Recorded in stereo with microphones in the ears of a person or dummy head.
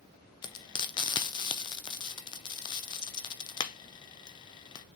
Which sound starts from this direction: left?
Frying, at 0.4 s.